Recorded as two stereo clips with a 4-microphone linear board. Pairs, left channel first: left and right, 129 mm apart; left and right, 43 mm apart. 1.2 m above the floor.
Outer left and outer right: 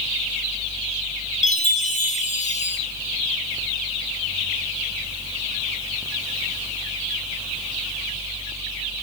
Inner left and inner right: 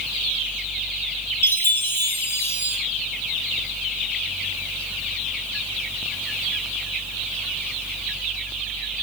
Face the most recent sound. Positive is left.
turn(degrees=65)  # may be behind; listen again after turning